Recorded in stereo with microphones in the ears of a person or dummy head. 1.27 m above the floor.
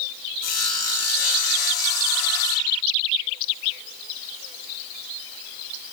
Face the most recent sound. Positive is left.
turn(degrees=75)  # may be behind; listen again after turning